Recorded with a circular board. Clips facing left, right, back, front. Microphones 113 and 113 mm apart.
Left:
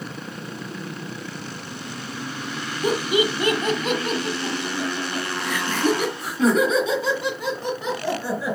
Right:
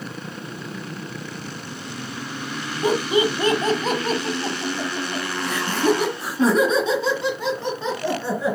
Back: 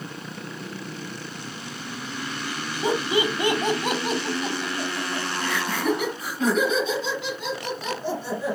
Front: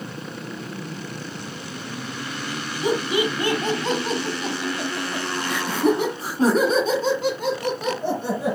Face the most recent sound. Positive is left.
turn(degrees=-25)